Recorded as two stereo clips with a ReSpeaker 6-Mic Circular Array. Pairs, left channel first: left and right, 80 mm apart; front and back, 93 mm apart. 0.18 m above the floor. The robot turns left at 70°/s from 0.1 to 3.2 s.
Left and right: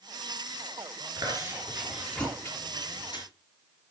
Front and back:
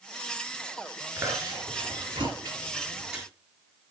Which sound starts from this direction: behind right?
Chewing, at 1.2 s.